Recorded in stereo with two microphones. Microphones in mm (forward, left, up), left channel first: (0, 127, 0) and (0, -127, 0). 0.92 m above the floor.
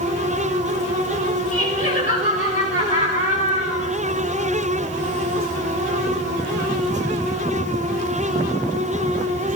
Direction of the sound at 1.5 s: 30° left (ahead or behind).